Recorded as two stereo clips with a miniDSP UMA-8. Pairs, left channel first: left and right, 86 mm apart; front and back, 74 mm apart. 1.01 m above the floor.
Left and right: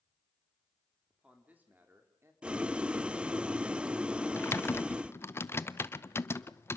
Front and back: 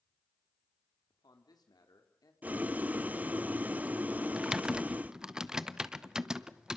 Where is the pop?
No pop in this recording.